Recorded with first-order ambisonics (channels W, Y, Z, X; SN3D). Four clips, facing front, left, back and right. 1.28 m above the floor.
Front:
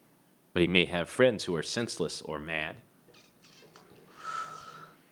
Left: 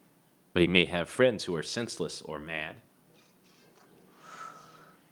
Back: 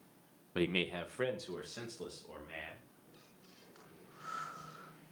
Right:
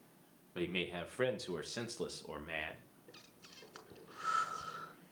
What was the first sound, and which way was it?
A man speaking, 60° left.